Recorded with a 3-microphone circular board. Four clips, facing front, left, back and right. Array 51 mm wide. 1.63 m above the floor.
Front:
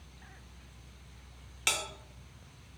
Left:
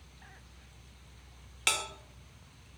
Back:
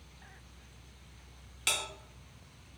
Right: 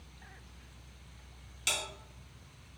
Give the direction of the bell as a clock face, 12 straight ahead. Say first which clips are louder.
Left 4 dB, front 1 dB; 10 o'clock.